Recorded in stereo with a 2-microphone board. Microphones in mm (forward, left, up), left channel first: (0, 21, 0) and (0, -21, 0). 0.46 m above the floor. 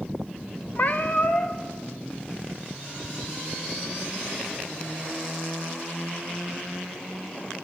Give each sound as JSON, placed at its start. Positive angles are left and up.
{"t": 0.8, "sound": "a cat meowing", "side_deg": 45, "distance_m": 0.7}